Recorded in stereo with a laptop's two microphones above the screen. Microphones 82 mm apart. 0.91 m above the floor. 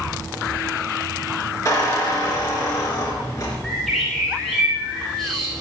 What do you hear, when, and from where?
1.6 s a squeak: 40° left (ahead or behind), 3.5 m
3.6 s a bird: centre (ahead or behind), 6.5 m